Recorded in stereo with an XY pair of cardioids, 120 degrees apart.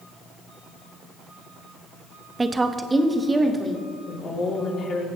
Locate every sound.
2.4 s a woman speaking: 20° right, 0.8 m
4.1 s a woman speaking: 50° left, 3 m